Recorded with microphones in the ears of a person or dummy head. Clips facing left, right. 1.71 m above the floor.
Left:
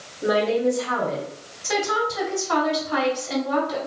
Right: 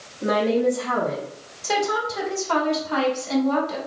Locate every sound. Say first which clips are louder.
0.2 s a woman speaking: even; 75° right (ahead or behind), 0.9 m; by 1.2 s 55° right (ahead or behind), 0.9 m
1.6 s a woman speaking: even; 85° right, 1.7 m